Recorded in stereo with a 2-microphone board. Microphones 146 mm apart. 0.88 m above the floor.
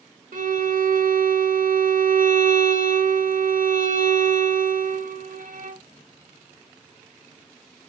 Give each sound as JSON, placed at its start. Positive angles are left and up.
{"t": 0.3, "sound": "a violin", "side_deg": -65, "distance_m": 0.9}